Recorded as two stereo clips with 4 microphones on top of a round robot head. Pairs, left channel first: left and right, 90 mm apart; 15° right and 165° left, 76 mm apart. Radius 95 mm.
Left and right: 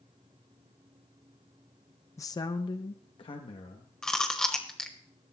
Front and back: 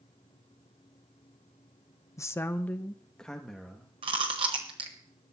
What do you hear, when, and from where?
2.2 s a man speaking: 40° left, 0.5 m; by 3.9 s 75° left, 1.3 m
4.0 s chewing: 175° left, 1.2 m